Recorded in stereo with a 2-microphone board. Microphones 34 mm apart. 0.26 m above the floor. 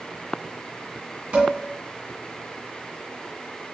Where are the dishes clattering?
40° right (ahead or behind), 1.6 m.